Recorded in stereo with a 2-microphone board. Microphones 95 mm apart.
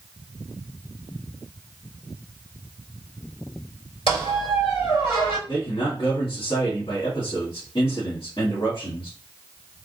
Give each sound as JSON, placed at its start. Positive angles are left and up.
{"t": 4.1, "sound": "a squeak", "side_deg": 80, "distance_m": 2.5}
{"t": 5.5, "sound": "a man speaking", "side_deg": 60, "distance_m": 1.8}